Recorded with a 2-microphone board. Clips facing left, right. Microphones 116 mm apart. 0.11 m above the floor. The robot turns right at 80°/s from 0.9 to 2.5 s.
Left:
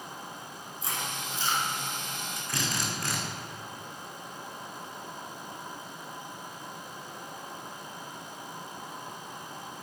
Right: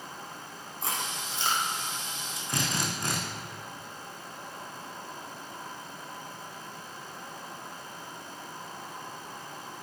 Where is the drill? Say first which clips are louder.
Right 2 dB; 20° right (ahead or behind), 4.5 m.